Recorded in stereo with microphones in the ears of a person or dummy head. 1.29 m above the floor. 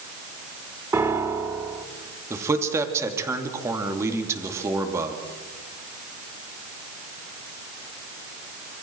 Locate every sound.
0.9 s a piano: 15° right (ahead or behind), 1.7 m
2.3 s a man speaking: 20° right (ahead or behind), 2.5 m